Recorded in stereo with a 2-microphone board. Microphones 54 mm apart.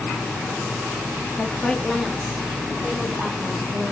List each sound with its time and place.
1.4 s a woman speaking: 25° left (ahead or behind), 0.6 m; by 3.9 s 20° right (ahead or behind), 1.5 m